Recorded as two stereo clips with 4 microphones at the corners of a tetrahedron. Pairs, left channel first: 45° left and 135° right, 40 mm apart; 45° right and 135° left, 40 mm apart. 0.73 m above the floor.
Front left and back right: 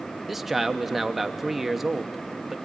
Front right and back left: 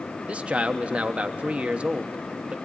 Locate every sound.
0.3 s a man speaking: 145° left, 0.9 m